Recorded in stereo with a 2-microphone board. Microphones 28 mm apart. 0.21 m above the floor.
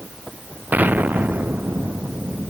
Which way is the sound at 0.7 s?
80° right.